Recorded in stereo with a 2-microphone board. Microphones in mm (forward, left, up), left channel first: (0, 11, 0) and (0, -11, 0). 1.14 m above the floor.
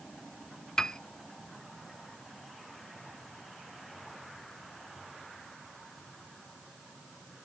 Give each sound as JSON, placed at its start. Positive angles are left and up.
{"t": 0.8, "sound": "a piano", "side_deg": 30}